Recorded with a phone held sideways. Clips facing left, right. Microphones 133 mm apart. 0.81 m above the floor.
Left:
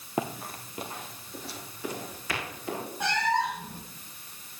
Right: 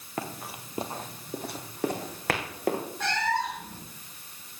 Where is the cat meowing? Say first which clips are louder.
Left 3 dB; 15° left (ahead or behind), 3 m.